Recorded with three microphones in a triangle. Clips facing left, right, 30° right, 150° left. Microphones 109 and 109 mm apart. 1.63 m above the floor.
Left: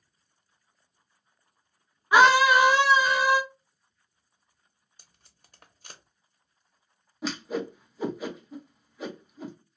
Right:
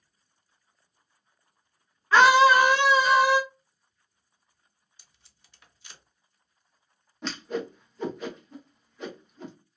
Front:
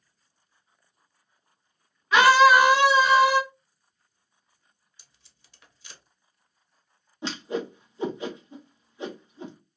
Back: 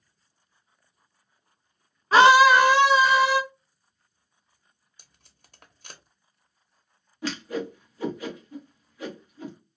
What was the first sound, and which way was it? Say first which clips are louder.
A scream: right 1 dB, back 1 dB; 150° left.